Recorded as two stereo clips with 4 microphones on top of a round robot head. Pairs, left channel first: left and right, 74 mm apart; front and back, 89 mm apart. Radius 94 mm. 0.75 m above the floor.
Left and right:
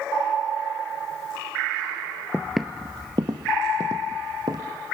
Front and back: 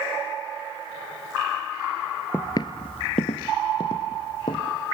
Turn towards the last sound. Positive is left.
turn(degrees=-45)